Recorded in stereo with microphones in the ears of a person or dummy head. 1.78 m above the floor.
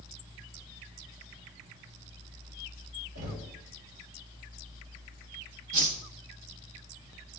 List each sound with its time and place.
3.1 s knocking: 70° right (ahead or behind), 6.5 m
5.7 s a whoosh: 40° right (ahead or behind), 1.5 m